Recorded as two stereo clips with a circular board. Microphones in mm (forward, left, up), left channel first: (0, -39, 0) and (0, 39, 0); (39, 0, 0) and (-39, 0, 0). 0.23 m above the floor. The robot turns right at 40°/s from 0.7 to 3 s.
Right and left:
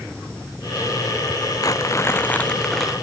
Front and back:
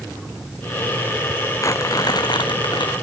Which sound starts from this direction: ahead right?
Crumpling, at 1.6 s.